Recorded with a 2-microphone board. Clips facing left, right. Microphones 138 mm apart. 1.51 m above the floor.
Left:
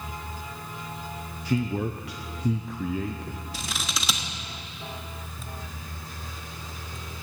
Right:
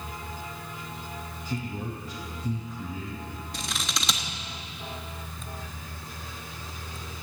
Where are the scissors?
5° left (ahead or behind), 1.1 m.